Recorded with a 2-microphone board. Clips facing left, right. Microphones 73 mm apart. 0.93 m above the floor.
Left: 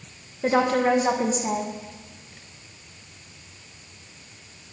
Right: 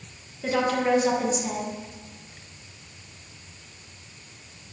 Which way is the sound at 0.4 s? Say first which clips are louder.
Left 3 dB; 35° left (ahead or behind).